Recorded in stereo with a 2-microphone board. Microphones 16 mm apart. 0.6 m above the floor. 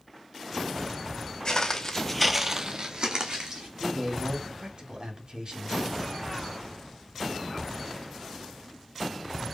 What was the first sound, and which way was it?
Footsteps, 45° left (ahead or behind).